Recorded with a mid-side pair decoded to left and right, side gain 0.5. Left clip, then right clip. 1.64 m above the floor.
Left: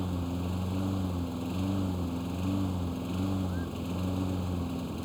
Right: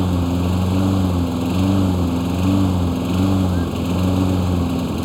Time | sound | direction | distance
0.0 | a lawn mower | 70° right | ?